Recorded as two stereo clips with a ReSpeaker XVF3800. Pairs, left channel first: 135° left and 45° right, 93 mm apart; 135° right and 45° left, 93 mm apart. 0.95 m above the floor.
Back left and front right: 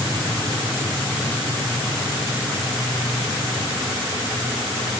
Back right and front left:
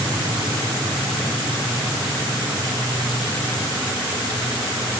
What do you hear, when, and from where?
Only background noise.